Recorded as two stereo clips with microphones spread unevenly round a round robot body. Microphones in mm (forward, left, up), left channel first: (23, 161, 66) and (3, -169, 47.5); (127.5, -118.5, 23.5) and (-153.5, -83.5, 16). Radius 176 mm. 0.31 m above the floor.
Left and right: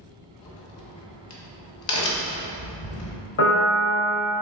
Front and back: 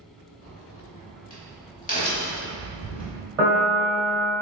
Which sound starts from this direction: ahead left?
A crack, at 0.4 s.